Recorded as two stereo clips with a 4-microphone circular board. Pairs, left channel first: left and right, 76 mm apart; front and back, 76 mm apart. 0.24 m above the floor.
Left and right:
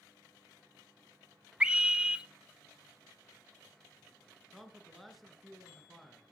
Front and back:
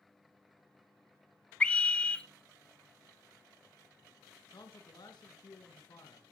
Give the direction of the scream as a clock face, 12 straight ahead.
1 o'clock.